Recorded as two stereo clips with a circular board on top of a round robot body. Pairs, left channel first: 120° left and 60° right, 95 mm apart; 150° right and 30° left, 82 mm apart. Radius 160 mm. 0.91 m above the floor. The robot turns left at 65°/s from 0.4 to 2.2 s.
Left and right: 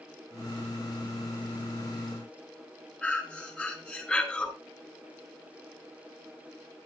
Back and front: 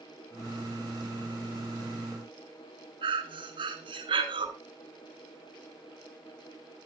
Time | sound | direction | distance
3.0 | breathing | 40° left | 2.5 m